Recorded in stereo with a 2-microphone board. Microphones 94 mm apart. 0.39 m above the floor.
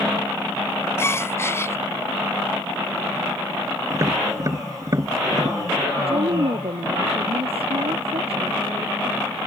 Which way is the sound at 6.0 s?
85° right.